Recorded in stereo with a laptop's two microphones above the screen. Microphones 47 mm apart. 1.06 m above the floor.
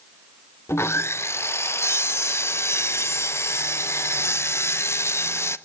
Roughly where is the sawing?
Left.